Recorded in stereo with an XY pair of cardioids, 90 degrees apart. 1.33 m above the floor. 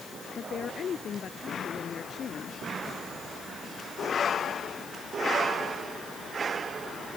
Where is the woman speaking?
50° left.